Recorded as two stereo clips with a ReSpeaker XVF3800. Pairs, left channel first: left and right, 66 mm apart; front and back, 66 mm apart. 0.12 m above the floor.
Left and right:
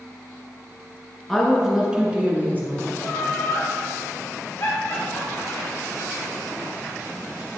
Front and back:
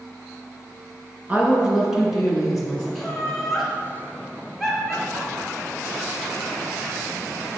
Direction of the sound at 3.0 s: 90° left.